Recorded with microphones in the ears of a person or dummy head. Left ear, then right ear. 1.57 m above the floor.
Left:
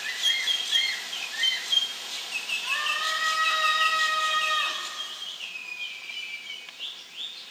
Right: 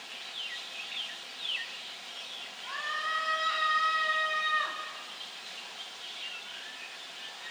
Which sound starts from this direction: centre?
A scream, at 2.6 s.